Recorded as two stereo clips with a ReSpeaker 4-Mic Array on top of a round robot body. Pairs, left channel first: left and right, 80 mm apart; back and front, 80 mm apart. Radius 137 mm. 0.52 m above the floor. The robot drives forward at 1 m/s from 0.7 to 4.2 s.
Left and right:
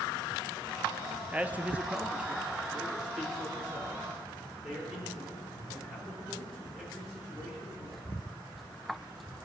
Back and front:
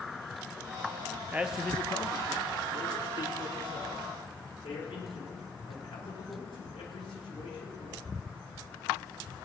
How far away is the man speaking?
About 0.9 m.